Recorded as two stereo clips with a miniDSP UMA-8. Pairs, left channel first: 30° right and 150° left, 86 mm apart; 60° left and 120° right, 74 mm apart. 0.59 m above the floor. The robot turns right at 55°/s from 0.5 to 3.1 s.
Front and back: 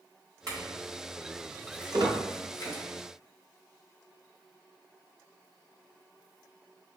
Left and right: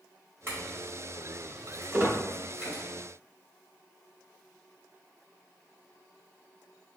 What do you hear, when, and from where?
0.5 s a clink: 175° right, 2 m; by 2.8 s 45° right, 2 m
1.9 s a squeak: straight behind, 1.2 m; by 2.2 s 165° right, 1.2 m